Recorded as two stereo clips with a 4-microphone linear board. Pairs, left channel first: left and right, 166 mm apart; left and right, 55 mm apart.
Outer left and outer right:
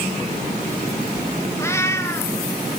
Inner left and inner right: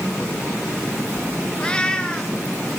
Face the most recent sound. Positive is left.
turn(degrees=15)  # may be behind; listen again after turning